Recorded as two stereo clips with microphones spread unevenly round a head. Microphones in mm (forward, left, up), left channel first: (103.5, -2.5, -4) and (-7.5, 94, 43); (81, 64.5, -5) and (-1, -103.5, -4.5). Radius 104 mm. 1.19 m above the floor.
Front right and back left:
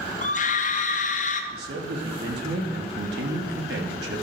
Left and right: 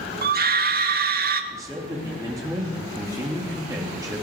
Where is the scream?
80° right, 2 m.